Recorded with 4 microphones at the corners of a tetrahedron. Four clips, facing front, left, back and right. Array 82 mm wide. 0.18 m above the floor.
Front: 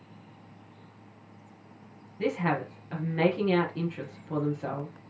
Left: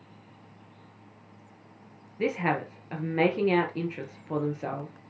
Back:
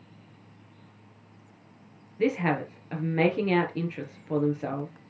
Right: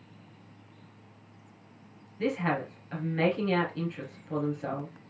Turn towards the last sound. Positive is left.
turn(degrees=135)